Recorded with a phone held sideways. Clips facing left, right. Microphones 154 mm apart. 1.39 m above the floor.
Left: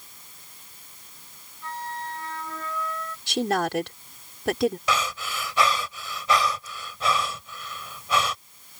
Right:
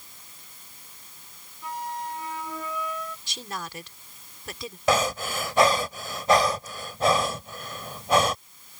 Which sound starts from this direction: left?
A woman speaking, at 3.3 s.